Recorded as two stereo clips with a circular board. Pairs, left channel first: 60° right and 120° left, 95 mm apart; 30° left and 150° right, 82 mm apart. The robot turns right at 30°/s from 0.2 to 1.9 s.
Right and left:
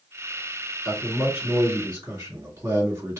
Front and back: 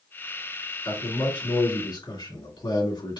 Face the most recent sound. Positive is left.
turn(degrees=55)